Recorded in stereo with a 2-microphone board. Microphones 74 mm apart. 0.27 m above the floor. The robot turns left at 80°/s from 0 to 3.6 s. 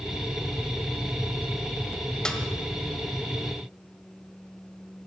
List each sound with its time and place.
2.2 s a snare drum: 10° left (ahead or behind), 1.6 m; by 2.4 s 15° left (ahead or behind), 1.6 m